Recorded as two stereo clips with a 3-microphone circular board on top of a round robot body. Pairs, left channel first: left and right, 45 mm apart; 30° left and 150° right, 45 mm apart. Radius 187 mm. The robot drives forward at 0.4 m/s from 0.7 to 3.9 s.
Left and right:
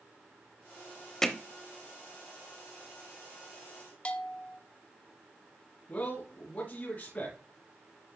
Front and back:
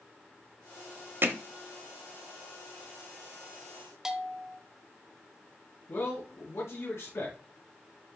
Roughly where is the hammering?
Behind.